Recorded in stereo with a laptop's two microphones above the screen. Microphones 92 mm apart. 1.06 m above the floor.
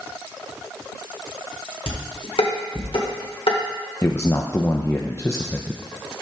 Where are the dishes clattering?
75° left (ahead or behind), 2.0 m.